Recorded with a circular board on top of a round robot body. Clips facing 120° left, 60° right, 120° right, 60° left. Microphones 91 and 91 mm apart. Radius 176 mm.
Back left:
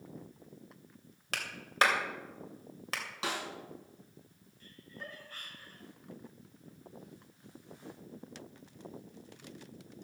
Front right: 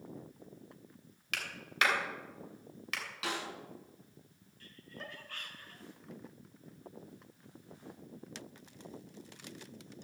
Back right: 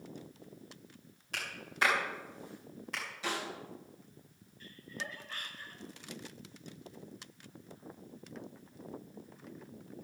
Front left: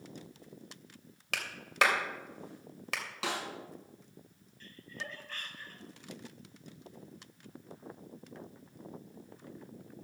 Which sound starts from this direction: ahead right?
Laughter, at 4.6 s.